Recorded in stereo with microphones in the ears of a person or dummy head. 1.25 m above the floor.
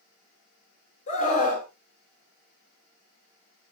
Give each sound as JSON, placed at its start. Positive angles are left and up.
{"t": 1.1, "sound": "a scream", "side_deg": 50, "distance_m": 4.0}